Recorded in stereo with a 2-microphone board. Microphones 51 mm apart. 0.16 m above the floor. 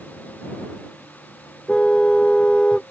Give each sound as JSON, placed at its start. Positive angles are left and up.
{"t": 1.7, "sound": "a car horn", "side_deg": 15}